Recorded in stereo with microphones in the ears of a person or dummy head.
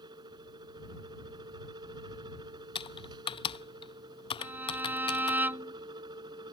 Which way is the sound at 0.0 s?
25° right (ahead or behind).